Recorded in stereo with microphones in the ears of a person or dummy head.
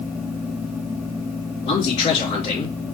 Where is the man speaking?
40° left (ahead or behind), 2.5 m.